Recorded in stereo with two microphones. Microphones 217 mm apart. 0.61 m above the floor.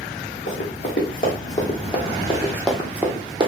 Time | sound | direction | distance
0.5 | running footsteps | 50° left (ahead or behind) | 1.6 m